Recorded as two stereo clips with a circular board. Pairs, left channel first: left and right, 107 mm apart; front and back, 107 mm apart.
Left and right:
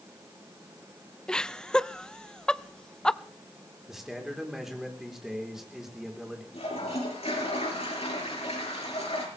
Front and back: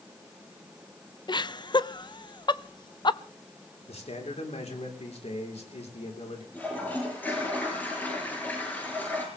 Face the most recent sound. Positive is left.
turn(degrees=75)